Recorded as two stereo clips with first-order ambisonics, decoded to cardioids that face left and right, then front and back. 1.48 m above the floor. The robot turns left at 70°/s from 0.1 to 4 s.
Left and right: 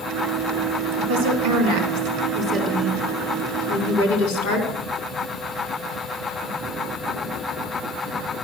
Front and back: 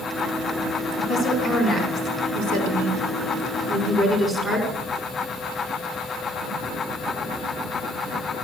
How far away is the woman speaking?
About 4.5 m.